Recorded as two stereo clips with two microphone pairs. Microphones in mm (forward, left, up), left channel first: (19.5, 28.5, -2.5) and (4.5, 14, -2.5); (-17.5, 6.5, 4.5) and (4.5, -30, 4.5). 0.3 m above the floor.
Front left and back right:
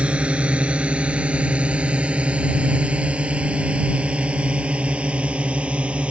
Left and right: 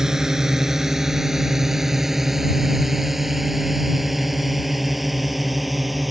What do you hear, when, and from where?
0.0 s a drone: 135° right; by 6.1 s 145° right